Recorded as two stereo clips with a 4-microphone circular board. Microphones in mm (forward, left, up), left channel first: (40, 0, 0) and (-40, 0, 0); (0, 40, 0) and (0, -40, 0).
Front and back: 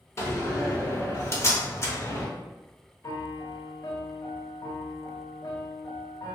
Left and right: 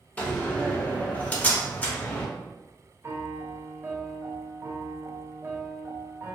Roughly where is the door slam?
Ahead left.